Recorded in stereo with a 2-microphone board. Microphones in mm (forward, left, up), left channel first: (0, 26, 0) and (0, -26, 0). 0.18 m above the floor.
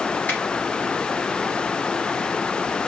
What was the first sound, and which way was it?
A finger snap, 35° left (ahead or behind).